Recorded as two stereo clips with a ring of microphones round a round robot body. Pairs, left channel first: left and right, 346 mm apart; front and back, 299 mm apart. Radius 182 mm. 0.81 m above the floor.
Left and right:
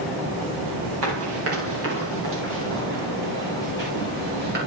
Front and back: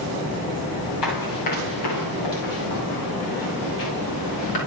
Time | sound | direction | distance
1.0 | running footsteps | 40° right | 9.5 m